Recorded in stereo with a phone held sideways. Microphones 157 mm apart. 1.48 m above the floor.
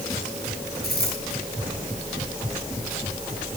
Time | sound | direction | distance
0.8 | a dropped coin | 85° left | 7 m